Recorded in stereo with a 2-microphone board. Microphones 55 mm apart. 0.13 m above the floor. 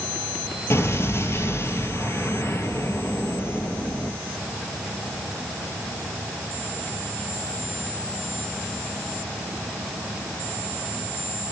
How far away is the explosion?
About 1.7 m.